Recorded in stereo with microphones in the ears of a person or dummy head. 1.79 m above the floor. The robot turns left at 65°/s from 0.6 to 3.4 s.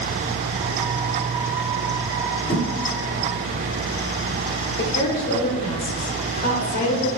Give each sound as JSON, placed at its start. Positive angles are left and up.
{"t": 2.5, "sound": "a thud", "side_deg": 15, "distance_m": 1.4}
{"t": 4.8, "sound": "a woman speaking", "side_deg": 45, "distance_m": 0.8}